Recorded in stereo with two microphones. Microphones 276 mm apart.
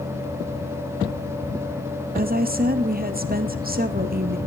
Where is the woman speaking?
35° right (ahead or behind), 1.1 m.